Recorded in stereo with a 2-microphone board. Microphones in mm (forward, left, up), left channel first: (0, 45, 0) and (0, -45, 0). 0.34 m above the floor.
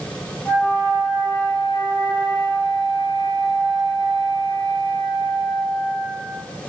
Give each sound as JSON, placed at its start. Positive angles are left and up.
{"t": 0.5, "sound": "a flute", "side_deg": 25, "distance_m": 1.6}